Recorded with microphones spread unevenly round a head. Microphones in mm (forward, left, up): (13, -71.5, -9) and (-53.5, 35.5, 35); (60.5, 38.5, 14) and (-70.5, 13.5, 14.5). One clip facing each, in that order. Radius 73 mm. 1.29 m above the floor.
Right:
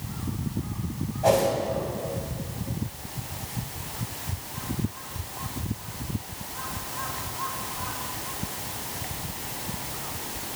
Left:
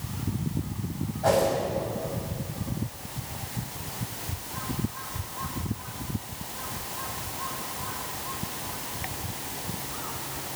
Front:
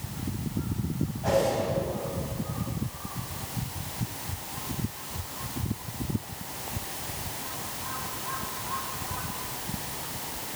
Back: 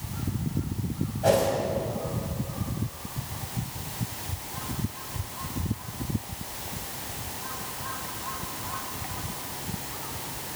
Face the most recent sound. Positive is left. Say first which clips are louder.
# right 2 dB, back 3 dB
turn(degrees=-125)